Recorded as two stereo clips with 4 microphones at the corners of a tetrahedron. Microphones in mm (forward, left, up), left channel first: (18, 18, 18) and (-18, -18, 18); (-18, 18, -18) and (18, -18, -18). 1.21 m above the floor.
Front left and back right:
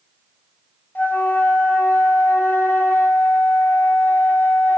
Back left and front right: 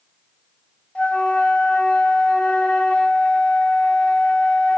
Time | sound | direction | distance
0.9 | a flute | 80° left | 0.7 m